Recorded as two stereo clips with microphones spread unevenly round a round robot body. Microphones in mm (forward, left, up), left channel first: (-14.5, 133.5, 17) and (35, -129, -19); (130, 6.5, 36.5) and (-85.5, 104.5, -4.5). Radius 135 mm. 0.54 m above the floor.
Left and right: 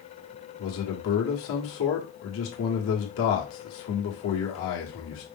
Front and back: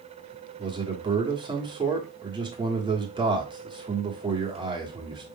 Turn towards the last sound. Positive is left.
turn(degrees=110)